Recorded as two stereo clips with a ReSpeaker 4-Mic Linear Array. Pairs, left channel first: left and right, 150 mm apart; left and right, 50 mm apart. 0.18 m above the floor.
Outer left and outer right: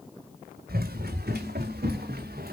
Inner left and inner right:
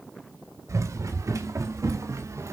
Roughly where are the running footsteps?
Right.